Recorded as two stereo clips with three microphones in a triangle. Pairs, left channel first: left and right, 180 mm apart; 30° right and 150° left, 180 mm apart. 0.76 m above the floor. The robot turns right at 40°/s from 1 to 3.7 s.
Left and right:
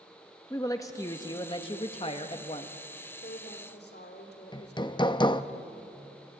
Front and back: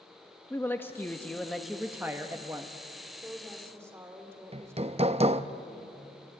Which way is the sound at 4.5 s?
135° left.